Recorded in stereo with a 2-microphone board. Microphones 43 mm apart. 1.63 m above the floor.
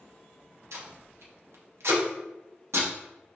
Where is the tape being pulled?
70° right (ahead or behind), 0.9 m.